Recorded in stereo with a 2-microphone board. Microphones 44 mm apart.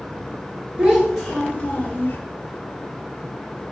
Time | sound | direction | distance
0.8 | a child speaking | 20° right (ahead or behind) | 0.6 m